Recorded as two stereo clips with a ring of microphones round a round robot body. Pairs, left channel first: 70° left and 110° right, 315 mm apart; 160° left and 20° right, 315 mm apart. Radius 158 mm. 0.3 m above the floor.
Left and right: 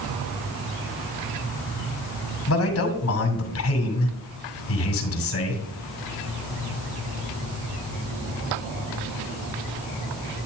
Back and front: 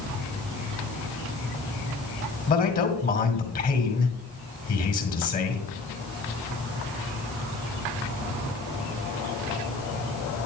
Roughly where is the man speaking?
Left.